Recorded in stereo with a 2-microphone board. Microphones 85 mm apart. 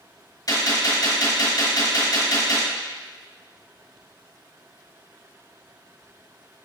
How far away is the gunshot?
About 2.0 m.